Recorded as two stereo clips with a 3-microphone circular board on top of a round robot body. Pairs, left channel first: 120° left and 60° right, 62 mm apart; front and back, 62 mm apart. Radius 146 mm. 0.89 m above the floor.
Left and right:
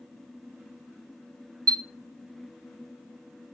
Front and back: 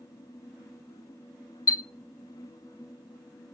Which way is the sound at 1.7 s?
40° right.